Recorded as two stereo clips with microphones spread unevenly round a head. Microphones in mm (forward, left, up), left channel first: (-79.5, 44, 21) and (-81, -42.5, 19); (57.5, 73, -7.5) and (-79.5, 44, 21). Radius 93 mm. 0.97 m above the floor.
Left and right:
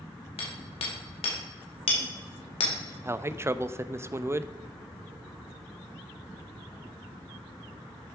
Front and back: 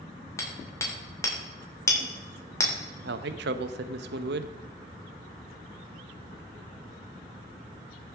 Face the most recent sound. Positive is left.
turn(degrees=-150)